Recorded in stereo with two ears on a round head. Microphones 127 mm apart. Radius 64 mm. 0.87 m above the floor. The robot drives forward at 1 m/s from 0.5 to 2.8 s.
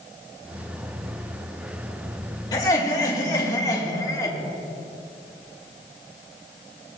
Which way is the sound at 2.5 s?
30° left (ahead or behind).